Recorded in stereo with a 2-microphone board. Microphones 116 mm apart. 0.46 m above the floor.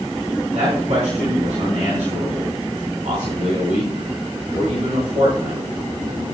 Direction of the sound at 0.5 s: 65° right (ahead or behind).